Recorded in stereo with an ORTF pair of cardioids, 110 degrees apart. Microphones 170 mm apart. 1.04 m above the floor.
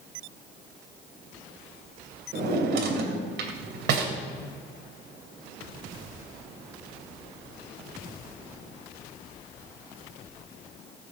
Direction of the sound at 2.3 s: 65° right.